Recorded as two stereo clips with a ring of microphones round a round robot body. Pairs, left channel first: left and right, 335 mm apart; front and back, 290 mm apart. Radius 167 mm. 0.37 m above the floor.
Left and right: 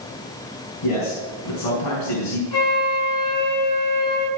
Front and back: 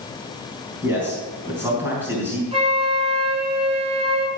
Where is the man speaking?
95° left, 4 m.